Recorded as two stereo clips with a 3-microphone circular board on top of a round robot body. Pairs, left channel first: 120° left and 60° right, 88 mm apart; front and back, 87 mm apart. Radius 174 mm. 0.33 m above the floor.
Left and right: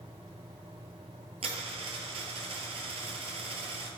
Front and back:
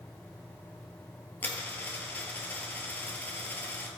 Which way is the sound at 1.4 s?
70° right.